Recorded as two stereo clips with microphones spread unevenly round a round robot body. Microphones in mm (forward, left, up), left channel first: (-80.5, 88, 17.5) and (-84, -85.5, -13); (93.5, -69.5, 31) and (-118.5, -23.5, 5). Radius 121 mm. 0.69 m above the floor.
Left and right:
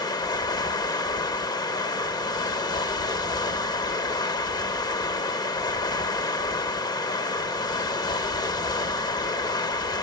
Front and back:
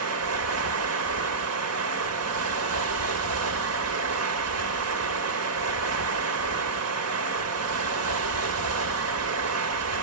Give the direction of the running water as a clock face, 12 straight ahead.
7 o'clock.